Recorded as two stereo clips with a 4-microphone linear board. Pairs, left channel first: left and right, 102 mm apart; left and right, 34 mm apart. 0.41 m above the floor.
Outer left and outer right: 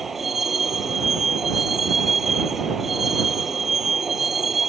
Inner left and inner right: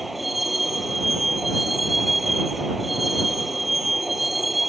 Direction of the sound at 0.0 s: Centre (ahead or behind).